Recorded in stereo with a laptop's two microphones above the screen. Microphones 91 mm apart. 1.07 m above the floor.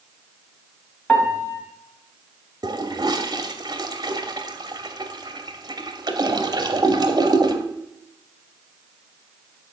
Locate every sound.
1.1 s a piano: 15° left (ahead or behind), 2 m
2.6 s a toilet flushing: 45° right (ahead or behind), 0.9 m